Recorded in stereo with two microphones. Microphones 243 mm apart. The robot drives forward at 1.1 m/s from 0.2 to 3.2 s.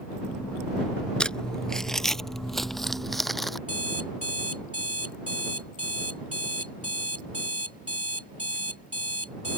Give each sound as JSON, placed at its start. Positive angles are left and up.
{"t": 1.2, "sound": "crumpling", "side_deg": 5}
{"t": 3.7, "sound": "an alarm clock", "side_deg": -70}